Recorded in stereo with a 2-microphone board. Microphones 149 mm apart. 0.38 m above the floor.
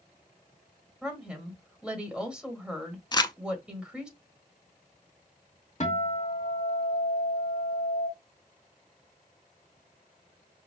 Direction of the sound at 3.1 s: 30° left (ahead or behind).